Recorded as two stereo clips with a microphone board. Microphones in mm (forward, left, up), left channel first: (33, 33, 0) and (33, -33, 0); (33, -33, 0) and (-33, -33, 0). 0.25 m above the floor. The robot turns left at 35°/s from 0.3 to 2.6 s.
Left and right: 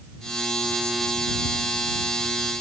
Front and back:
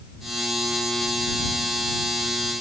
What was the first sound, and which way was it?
Only background noise.